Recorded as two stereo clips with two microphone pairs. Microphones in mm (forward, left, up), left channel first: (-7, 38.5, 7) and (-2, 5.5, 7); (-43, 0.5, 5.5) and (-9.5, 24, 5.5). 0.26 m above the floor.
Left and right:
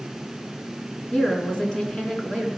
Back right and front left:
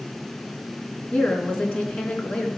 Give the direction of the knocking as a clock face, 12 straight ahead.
No knocking in this recording.